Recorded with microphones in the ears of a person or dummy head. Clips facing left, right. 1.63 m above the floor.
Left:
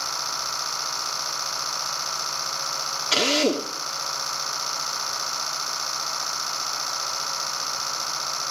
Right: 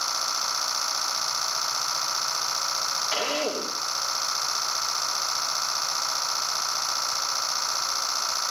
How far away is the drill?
About 2.5 m.